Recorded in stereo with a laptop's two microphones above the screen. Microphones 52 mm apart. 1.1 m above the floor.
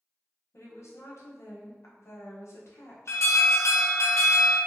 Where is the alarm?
65° left (ahead or behind), 0.7 m.